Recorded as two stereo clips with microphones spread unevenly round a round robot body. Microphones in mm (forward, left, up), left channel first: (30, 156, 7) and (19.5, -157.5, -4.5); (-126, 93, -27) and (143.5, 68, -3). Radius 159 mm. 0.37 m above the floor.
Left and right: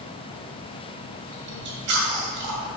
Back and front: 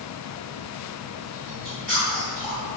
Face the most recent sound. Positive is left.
turn(degrees=-100)